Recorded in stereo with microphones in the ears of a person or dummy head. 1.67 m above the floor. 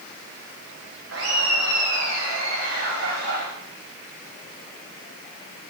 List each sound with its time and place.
1.1 s laughter: 75° right (ahead or behind), 1.7 m; by 3.5 s 55° right (ahead or behind), 4.5 m